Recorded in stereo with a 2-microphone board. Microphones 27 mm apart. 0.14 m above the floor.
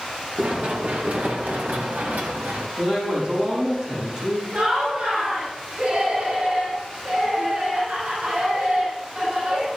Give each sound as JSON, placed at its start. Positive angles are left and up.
{"t": 0.4, "sound": "running footsteps", "side_deg": -65, "distance_m": 4.0}
{"t": 2.8, "sound": "a man speaking", "side_deg": -30, "distance_m": 7.5}
{"t": 4.5, "sound": "laughter", "side_deg": -65, "distance_m": 7.0}